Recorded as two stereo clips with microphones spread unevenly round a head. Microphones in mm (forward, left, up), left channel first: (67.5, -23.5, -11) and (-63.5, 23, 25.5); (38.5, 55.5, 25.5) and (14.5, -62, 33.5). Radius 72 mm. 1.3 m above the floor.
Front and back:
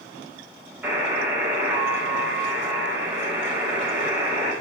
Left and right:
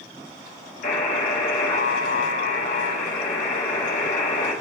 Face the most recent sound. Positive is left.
turn(degrees=80)